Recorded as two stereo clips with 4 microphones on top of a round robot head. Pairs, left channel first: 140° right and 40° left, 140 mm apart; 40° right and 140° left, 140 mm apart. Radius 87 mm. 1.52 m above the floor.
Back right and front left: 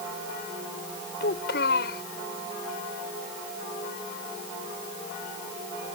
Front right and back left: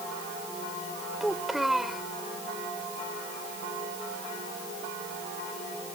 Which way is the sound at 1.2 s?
130° right.